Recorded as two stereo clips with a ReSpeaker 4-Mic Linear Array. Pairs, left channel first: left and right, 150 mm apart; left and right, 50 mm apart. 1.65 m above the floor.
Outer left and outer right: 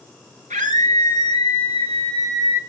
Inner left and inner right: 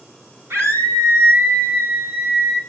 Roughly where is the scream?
Right.